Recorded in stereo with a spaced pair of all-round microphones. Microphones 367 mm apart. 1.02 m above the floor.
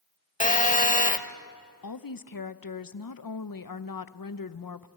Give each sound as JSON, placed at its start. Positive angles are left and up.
{"t": 0.4, "sound": "a phone buzzing", "side_deg": 20, "distance_m": 0.8}
{"t": 1.8, "sound": "a woman speaking", "side_deg": 65, "distance_m": 0.6}